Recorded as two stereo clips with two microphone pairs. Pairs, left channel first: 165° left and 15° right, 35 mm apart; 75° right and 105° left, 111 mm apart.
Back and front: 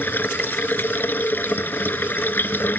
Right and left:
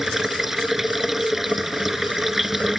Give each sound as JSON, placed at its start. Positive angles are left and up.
{"t": 0.0, "sound": "running water", "azimuth_deg": -165}